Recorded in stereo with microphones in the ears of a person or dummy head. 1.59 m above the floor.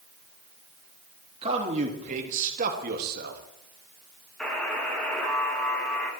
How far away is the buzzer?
About 2 m.